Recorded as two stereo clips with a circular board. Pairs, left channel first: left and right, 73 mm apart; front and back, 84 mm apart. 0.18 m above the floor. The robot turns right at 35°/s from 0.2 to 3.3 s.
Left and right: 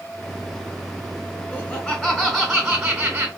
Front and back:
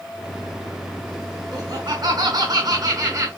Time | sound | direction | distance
1.5 | laughter | 150° left | 2 m